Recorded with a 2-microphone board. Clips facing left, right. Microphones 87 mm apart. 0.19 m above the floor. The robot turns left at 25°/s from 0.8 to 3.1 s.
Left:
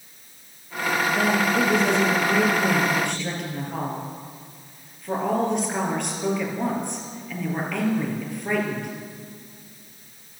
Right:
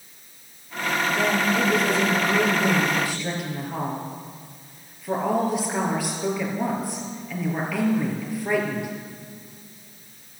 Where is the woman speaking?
45° left, 4 m; by 8.9 s 5° right, 4 m.